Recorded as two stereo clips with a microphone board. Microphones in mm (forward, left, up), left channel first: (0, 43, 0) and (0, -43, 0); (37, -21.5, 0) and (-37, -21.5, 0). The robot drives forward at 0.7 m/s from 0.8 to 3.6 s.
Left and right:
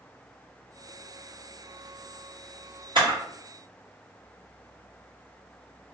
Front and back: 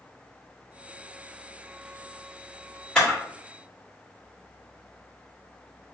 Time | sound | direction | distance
3.0 | a camera shutter | 80° right | 2 m